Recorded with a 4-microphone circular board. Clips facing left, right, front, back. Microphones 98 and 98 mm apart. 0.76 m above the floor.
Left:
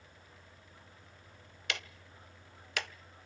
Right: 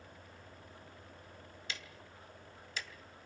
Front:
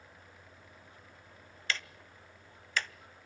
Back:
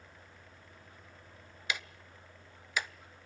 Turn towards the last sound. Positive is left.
turn(degrees=105)